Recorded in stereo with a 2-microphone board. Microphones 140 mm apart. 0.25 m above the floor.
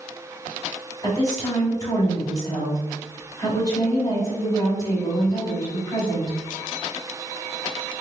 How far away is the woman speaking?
About 1.9 m.